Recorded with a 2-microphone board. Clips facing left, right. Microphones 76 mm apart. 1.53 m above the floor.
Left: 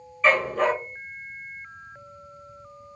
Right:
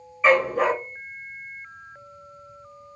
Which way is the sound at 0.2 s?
10° right (ahead or behind).